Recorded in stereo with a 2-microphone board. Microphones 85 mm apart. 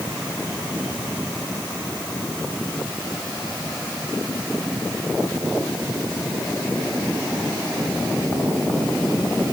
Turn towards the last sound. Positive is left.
No sound to turn to.